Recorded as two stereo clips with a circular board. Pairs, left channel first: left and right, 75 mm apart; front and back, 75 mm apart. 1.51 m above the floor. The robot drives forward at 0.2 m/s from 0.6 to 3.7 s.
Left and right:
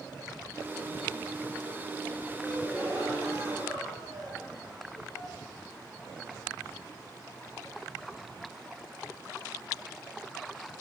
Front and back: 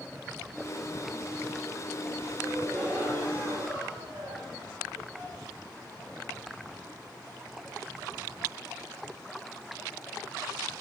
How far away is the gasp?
About 1.8 m.